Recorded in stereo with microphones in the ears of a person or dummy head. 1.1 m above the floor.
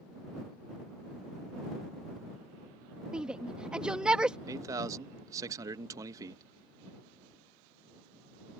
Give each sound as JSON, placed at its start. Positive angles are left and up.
{"t": 3.1, "sound": "a shout", "side_deg": -5}
{"t": 4.5, "sound": "a man speaking", "side_deg": -20}